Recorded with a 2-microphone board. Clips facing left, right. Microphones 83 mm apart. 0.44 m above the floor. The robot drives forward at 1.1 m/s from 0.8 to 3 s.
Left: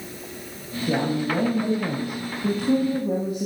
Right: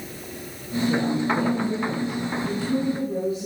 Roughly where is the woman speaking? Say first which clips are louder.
Even; left.